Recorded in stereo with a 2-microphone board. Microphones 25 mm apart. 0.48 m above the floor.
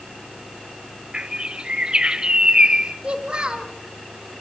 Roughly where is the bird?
Right.